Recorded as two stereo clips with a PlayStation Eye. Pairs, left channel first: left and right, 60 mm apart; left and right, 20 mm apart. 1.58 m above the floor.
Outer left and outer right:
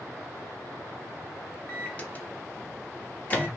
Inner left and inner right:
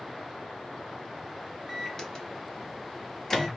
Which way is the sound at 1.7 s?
25° left (ahead or behind).